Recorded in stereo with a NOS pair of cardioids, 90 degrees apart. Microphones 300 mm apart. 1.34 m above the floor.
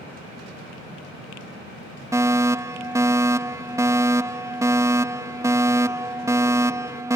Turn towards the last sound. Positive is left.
turn(degrees=-10)